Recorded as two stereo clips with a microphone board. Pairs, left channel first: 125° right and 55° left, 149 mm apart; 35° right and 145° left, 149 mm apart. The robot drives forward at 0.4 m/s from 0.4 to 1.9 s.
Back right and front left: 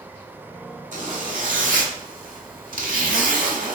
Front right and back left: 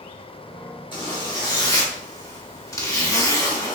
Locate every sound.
0.9 s a zipper: 25° left, 1.2 m; by 3.8 s 35° left, 0.9 m